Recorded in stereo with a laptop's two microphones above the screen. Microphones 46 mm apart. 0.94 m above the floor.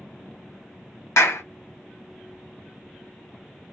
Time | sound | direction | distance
1.2 | a clap | 75° left (ahead or behind) | 0.7 m